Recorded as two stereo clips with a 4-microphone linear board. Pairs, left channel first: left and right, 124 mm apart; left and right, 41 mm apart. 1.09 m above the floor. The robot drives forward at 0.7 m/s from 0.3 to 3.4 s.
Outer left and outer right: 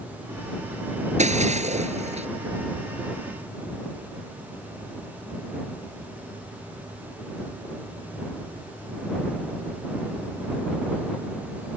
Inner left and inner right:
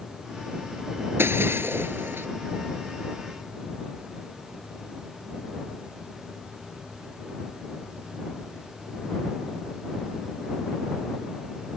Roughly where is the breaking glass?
Right.